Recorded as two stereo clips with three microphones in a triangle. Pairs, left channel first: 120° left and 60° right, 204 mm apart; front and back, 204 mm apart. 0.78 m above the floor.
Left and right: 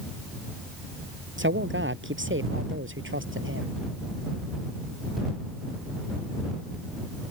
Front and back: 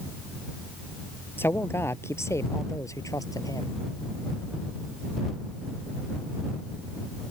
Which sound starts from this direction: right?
A man speaking, at 1.4 s.